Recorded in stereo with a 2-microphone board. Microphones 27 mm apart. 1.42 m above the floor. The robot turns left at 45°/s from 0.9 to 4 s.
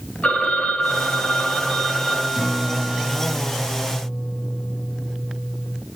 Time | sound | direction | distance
0.2 | a phone ringing | 70° left | 4 m
2.4 | a guitar | 30° right | 1.9 m